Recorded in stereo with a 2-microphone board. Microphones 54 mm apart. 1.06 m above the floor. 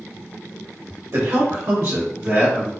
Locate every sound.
1.1 s a man speaking: 60° right (ahead or behind), 1.3 m; by 2.7 s 25° right (ahead or behind), 1.6 m